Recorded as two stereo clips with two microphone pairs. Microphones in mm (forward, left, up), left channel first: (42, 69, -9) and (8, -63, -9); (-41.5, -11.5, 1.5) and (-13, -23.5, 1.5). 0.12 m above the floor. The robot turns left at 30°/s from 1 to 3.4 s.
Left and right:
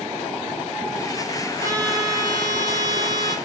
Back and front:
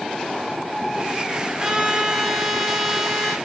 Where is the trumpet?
65° right, 1.0 m; by 3.4 s 120° right, 1.0 m.